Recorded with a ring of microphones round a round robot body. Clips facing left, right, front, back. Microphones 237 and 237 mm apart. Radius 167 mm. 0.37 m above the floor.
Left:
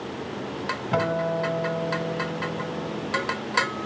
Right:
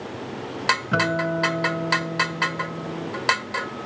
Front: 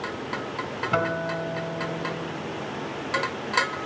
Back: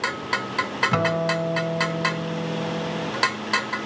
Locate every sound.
0.9 s a guitar: 175° right, 1.5 m